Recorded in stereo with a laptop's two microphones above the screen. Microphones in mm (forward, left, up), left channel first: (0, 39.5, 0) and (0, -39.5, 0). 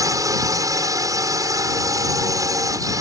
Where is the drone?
45° right (ahead or behind).